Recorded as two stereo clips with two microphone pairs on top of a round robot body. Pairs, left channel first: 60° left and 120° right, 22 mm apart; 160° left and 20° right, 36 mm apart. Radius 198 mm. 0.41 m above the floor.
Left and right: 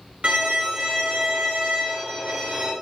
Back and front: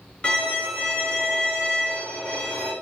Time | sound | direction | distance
0.2 | a violin | 140° right | 3 m